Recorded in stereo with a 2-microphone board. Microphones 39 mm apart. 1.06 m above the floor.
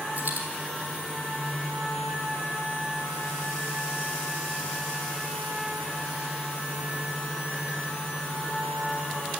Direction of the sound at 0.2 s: 40° right (ahead or behind).